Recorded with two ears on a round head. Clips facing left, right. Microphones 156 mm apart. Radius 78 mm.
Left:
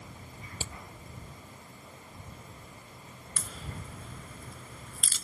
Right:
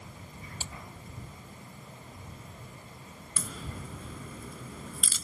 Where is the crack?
80° right.